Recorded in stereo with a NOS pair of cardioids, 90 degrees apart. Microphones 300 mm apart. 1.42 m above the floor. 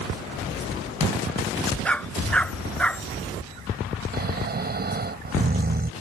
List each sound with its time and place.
1.9 s a dog barking: 5° left
4.1 s snoring: 30° right